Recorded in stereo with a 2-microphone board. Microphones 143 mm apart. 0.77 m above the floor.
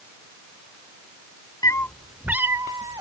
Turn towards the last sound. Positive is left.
turn(degrees=-25)  # may be behind; listen again after turning